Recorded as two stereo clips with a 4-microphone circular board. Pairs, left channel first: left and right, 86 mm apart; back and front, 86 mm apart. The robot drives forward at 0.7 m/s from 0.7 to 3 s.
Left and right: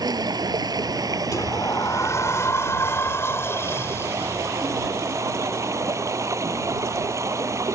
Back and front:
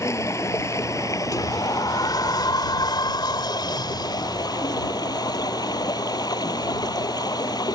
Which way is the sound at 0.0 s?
125° right.